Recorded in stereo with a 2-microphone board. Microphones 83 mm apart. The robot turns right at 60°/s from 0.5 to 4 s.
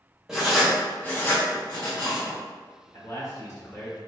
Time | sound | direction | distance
0.3 | writing | 5° right (ahead or behind) | 1.3 m
2.9 | a man speaking | 90° left | 1.3 m